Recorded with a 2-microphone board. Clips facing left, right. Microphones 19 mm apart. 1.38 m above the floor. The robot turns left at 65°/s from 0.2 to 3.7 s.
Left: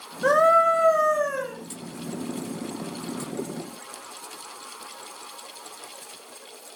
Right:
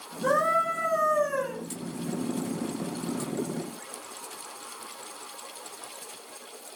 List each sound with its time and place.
0.2 s a scream: 90° left, 7.5 m; by 1.6 s straight ahead, 7.5 m